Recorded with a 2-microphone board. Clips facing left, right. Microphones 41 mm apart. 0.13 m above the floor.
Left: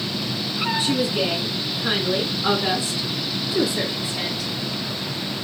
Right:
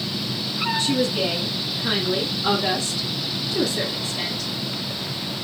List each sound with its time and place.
0.8 s a woman speaking: 20° left (ahead or behind), 1.7 m; by 4.5 s 15° left (ahead or behind), 2.5 m